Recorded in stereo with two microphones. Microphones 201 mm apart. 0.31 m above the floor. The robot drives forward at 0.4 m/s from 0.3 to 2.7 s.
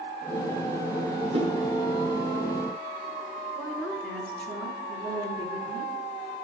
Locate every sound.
1.3 s a whoosh: 30° right (ahead or behind), 3 m
3.5 s a woman speaking: 5° left (ahead or behind), 4 m